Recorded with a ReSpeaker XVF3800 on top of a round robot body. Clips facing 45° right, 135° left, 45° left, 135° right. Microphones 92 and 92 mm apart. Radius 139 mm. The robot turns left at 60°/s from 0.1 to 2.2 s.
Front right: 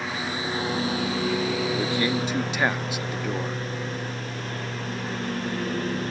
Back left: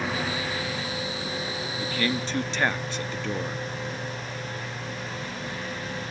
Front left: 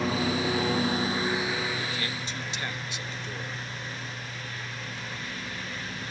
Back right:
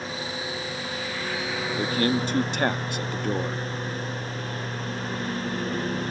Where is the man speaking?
100° right; by 3.6 s 125° right.